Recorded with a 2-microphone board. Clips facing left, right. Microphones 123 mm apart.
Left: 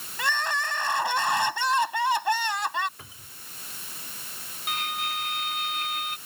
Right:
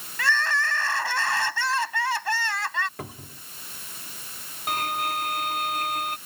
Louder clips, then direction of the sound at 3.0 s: Right 11 dB; 70° right (ahead or behind).